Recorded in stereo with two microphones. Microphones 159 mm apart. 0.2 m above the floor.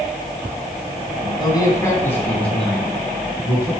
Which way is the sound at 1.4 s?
30° left (ahead or behind).